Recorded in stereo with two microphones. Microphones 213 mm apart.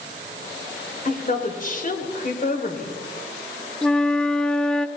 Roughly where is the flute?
Centre.